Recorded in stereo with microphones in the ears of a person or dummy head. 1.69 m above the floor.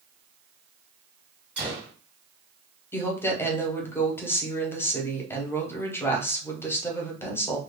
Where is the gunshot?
5° right (ahead or behind), 1.9 m.